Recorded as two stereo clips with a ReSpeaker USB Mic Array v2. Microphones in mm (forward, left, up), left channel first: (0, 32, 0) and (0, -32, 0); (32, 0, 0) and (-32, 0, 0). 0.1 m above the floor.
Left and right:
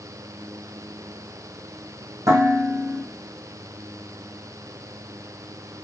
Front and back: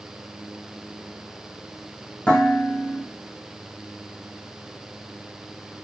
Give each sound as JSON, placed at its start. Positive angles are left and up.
{"t": 2.3, "sound": "dishes clattering", "azimuth_deg": -70, "distance_m": 3.5}